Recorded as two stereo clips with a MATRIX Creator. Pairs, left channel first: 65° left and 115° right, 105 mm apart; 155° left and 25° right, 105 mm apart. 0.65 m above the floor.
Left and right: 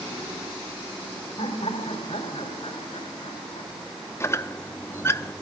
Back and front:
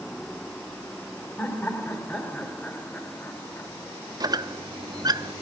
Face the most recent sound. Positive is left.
turn(degrees=10)